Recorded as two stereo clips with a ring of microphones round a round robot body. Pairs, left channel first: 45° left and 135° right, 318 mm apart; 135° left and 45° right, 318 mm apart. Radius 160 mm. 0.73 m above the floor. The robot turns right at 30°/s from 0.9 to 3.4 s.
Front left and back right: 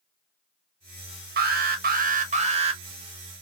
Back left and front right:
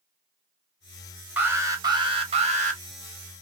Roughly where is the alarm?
Behind right.